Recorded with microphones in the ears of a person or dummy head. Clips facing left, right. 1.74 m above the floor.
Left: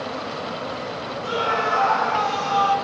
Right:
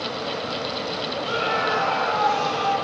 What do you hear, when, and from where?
1.2 s a scream: 70° left (ahead or behind), 9 m; by 2.7 s 65° left (ahead or behind), 10 m